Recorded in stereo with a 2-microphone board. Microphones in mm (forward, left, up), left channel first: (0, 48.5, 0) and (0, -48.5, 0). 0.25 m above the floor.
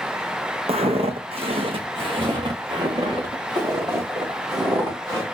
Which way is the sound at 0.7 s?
70° right (ahead or behind).